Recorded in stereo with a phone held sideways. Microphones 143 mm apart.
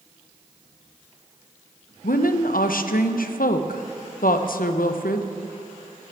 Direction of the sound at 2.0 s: 85° left.